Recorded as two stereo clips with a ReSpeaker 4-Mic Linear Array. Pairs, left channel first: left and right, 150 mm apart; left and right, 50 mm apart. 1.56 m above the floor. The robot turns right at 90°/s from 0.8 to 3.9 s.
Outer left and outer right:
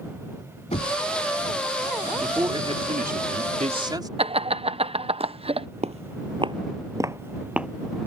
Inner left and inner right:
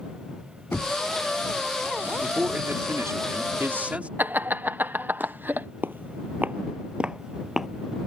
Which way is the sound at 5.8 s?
45° right (ahead or behind).